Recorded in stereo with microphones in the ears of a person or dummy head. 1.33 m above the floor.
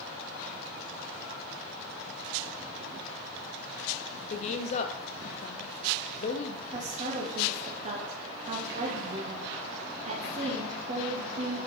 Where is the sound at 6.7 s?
40° right (ahead or behind), 1.4 m.